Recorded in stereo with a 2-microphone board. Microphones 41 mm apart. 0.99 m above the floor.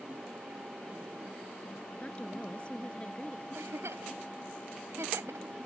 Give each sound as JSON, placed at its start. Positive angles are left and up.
{"t": 2.0, "sound": "a woman speaking", "side_deg": 25}
{"t": 3.5, "sound": "a giggle", "side_deg": -90}